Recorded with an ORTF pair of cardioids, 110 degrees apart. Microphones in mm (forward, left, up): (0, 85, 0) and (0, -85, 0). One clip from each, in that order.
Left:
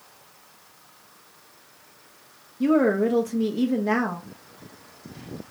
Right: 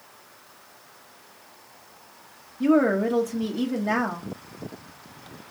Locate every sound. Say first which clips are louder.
2.6 s a woman speaking: even; 10° left, 0.7 m